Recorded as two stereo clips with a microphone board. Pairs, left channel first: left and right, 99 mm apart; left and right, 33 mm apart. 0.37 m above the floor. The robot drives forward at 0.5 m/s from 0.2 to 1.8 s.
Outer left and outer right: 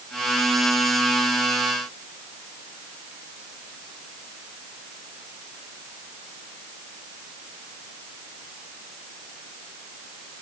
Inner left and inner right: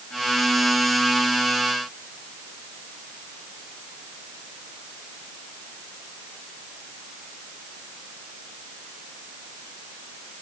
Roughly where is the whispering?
I don't hear whispering.